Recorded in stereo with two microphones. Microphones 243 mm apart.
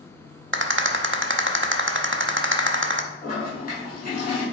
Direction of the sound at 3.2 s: 35° left (ahead or behind).